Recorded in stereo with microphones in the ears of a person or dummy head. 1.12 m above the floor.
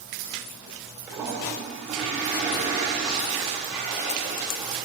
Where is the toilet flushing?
Centre (ahead or behind), 1.6 m.